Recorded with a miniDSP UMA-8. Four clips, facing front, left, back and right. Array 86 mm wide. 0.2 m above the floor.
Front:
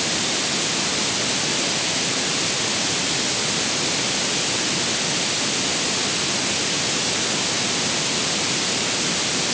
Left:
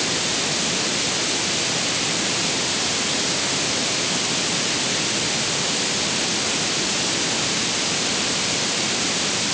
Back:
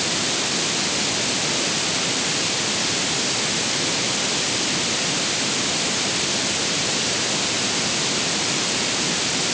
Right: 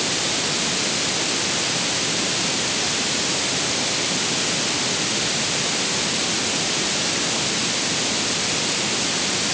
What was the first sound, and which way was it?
Only background noise.